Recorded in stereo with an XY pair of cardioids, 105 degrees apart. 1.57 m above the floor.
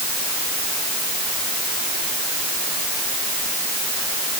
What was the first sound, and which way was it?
Only background noise.